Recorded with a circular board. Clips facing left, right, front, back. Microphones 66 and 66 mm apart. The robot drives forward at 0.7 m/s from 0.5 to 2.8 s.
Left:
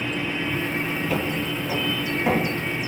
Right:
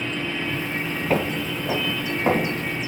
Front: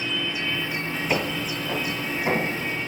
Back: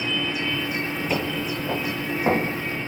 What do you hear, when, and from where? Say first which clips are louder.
1.1 s footsteps: right 2 dB, front 2 dB; 70° right, 0.7 m; by 2.8 s 145° right, 2.5 m